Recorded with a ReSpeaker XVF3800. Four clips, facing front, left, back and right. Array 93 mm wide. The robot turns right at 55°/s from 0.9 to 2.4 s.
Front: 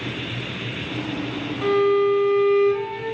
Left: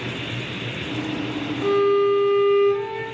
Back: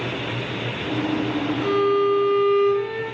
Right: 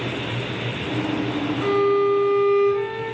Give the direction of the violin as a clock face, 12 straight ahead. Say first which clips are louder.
Left 1 dB, front 2 dB; 12 o'clock.